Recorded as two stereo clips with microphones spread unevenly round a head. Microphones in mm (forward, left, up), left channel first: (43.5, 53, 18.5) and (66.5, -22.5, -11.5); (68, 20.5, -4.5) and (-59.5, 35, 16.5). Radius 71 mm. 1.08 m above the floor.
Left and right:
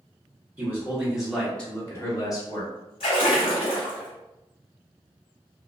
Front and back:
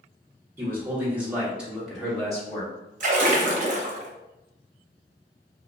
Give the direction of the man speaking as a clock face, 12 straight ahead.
4 o'clock.